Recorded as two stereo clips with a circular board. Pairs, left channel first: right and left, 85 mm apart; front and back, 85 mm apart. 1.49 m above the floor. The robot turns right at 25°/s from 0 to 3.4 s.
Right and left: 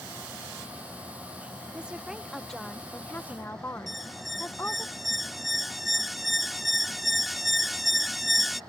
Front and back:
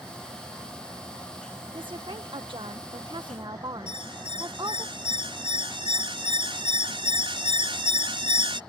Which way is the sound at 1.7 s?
165° left.